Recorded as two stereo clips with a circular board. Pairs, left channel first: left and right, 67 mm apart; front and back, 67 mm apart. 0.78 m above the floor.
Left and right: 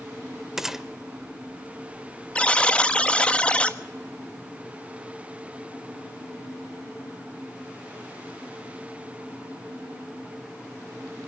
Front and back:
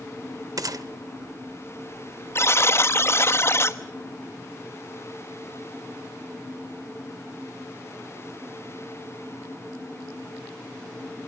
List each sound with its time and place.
0.6 s a gunshot: 175° right, 0.8 m
2.4 s a buzzer: 25° left, 1.1 m